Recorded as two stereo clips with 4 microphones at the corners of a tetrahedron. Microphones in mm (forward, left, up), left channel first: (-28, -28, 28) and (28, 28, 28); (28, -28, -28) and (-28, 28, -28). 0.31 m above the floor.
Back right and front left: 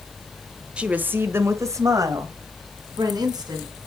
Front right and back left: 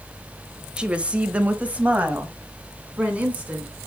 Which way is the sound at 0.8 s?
95° left.